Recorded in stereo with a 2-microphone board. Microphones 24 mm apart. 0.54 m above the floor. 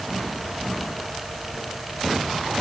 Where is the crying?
No crying in this recording.